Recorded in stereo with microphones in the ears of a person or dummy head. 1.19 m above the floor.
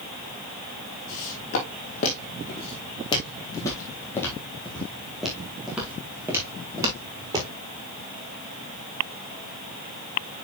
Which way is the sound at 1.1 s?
50° left (ahead or behind).